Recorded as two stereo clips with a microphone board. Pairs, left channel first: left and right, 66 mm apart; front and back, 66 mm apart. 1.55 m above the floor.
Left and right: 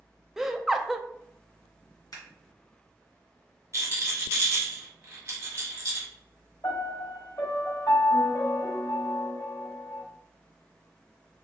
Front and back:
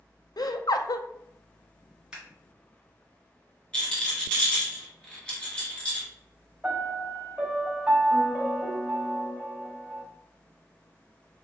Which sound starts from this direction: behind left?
A piano, at 6.6 s.